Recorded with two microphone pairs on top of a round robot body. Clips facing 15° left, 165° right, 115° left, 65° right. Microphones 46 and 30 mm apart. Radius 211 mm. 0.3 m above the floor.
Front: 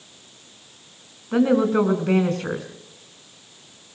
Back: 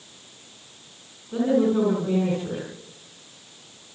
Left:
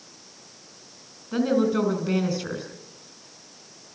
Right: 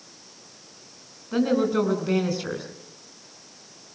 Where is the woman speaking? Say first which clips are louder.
Front 3 dB, even; 20° left, 3.5 m.